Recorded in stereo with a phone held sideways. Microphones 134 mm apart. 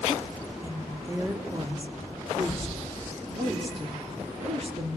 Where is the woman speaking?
20° right (ahead or behind), 3.5 m; by 5.0 s 50° right (ahead or behind), 4.5 m.